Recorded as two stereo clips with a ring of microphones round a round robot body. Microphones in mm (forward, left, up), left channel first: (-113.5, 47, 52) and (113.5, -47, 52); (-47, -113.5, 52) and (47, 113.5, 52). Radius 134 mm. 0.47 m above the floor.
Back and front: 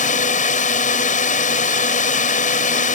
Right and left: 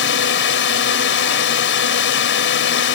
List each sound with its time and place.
0.0 s a drone: 145° right